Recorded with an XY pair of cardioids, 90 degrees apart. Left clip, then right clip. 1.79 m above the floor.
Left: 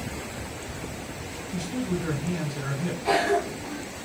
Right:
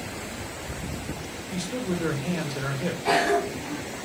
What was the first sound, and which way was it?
A man speaking, 65° right.